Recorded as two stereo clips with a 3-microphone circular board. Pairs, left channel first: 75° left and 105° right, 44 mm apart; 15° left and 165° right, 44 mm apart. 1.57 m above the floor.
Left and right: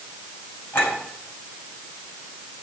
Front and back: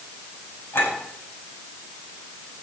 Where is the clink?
45° left, 7 m.